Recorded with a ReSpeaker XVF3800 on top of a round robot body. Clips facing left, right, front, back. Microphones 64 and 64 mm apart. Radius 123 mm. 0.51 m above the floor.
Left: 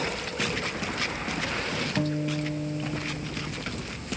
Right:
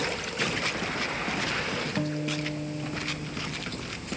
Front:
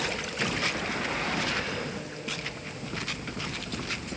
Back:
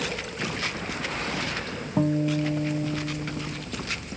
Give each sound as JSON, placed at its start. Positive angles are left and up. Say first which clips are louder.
{"t": 2.0, "sound": "a guitar", "louder": "left 4 dB, back 13 dB", "azimuth_deg": 175}